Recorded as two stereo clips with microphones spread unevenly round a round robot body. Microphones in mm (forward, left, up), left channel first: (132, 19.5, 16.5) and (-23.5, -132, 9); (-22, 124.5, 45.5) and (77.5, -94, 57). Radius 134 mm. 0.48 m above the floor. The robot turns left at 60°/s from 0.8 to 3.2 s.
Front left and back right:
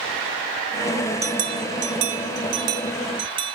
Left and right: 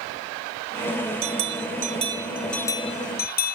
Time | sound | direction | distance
1.2 | a bell | 85° right | ?